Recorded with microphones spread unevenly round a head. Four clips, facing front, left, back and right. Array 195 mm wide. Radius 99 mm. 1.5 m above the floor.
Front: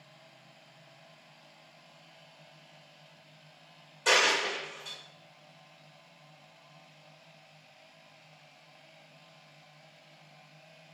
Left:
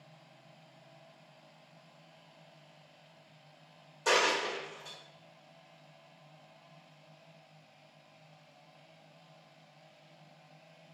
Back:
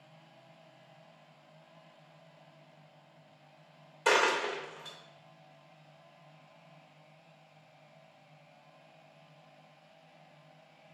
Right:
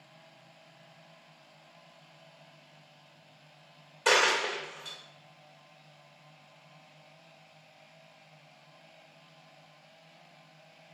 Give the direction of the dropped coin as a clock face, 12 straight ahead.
6 o'clock.